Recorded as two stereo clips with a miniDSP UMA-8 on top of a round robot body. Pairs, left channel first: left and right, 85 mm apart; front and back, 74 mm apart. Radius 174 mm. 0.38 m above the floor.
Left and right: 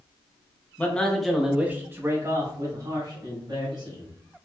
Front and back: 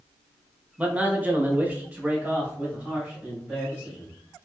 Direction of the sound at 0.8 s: 135° left.